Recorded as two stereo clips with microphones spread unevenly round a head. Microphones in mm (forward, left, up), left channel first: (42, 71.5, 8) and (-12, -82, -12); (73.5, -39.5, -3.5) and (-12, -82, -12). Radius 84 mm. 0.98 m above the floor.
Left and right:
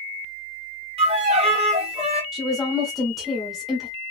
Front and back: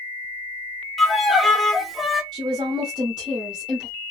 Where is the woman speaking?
165° left, 0.9 m.